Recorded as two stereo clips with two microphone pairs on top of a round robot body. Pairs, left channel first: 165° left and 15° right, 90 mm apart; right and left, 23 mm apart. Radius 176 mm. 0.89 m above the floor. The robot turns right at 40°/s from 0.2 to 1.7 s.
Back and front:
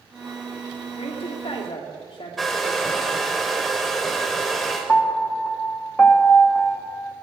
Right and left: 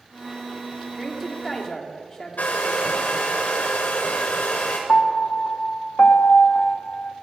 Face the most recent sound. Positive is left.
turn(degrees=-115)